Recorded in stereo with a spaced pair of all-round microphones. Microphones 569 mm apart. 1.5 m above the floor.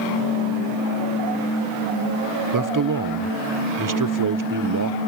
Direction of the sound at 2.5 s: 35° right (ahead or behind).